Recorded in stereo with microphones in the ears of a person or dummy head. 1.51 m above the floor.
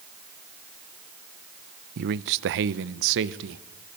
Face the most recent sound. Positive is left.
turn(degrees=-70)  # may be behind; listen again after turning